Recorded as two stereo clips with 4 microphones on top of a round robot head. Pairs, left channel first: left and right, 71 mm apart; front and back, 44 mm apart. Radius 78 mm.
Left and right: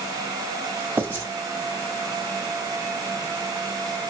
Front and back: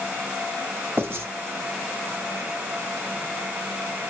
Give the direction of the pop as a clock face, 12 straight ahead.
No pop in this recording.